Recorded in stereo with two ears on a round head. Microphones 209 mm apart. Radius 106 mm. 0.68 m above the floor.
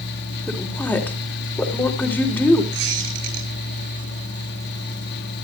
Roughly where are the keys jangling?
I don't hear keys jangling.